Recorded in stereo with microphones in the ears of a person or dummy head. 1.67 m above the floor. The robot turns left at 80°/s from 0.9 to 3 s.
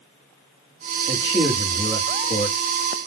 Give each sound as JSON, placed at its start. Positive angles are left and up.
{"t": 1.1, "sound": "a man speaking", "azimuth_deg": -135, "distance_m": 1.0}